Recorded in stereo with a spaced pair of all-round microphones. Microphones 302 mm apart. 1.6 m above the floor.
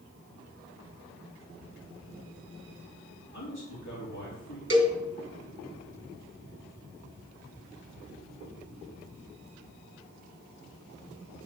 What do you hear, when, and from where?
3.3 s a man speaking: 70° left (ahead or behind), 4.5 m
4.7 s a cowbell: 40° right (ahead or behind), 1.8 m